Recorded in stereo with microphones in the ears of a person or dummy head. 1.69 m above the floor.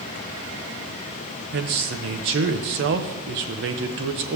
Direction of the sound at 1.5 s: 60° right (ahead or behind).